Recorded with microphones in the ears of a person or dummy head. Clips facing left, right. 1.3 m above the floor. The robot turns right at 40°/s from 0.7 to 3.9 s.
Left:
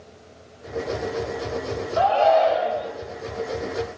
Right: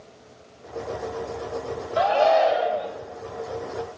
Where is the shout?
30° right, 0.9 m; by 2.9 s 10° left, 0.9 m.